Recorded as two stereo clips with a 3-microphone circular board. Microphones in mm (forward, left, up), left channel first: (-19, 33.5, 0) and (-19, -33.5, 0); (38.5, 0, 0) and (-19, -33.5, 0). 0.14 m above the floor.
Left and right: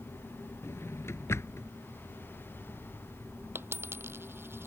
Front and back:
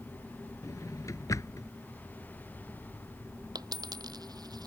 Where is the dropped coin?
145° right.